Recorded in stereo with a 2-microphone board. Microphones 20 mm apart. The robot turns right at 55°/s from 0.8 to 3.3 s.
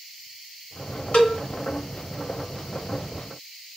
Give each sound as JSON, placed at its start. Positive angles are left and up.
{"t": 1.1, "sound": "a cowbell", "side_deg": 55, "distance_m": 0.8}